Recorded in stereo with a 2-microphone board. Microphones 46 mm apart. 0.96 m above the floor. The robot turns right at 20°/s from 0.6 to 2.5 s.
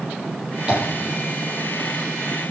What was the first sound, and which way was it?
Tapping, 25° right (ahead or behind).